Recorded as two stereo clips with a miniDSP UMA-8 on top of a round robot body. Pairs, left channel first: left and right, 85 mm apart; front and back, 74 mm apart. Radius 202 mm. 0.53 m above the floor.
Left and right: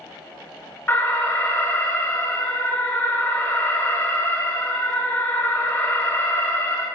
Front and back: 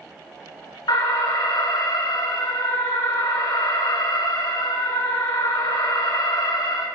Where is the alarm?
25° left, 7 m.